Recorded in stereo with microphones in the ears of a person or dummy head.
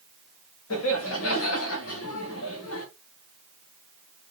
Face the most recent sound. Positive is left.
turn(degrees=70)  # may be behind; listen again after turning